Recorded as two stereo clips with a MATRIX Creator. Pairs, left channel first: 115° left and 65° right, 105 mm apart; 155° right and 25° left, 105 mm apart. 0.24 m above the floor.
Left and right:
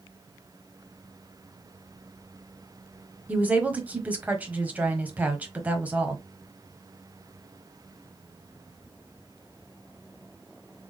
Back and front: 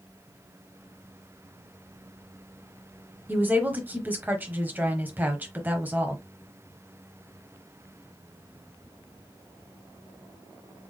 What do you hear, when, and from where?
3.3 s a woman speaking: 20° right, 1.1 m